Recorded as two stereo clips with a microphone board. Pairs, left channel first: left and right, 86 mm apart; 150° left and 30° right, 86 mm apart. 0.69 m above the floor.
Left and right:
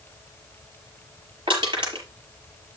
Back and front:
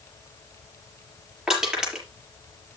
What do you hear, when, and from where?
1.5 s crushing: 110° right, 5.5 m